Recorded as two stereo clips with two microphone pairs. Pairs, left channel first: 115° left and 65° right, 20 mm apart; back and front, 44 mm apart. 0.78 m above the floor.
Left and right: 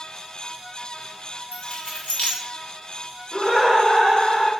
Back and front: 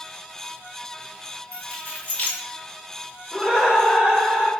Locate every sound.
1.5 s keys jangling: 120° left, 1.3 m
3.3 s laughter: 70° left, 2.5 m